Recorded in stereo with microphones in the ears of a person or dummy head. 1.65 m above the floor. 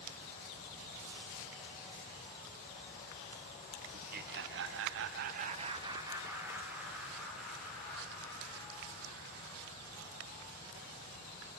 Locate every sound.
3.9 s laughter: 50° right (ahead or behind), 1.1 m; by 10.4 s 10° left (ahead or behind), 4.5 m